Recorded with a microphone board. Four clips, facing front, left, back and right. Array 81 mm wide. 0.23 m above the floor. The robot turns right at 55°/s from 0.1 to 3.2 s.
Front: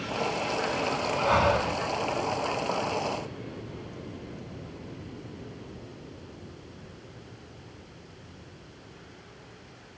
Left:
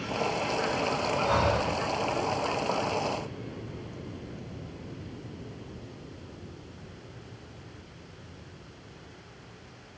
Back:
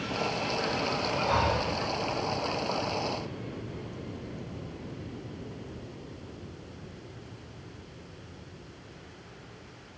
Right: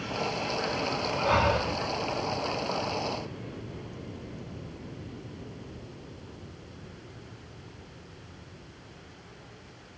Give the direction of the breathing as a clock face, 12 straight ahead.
1 o'clock.